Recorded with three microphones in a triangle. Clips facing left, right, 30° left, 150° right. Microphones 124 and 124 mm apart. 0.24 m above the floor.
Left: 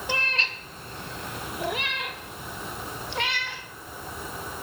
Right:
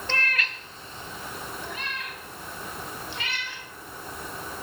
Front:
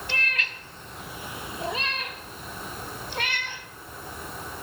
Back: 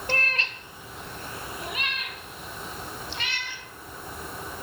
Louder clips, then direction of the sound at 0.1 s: Even, back 4 dB; 170° left.